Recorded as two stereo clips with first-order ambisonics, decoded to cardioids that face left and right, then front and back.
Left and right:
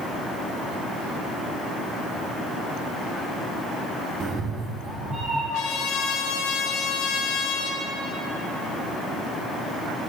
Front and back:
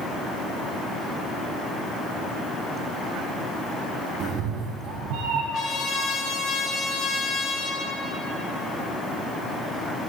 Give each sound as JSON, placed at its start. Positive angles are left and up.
{"t": 4.2, "sound": "a cat meowing", "azimuth_deg": -135, "distance_m": 0.8}
{"t": 5.5, "sound": "a trumpet", "azimuth_deg": 55, "distance_m": 2.0}